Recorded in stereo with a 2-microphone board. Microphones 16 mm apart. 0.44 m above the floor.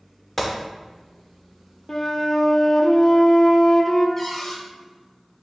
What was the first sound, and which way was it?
A gunshot, 5° left (ahead or behind).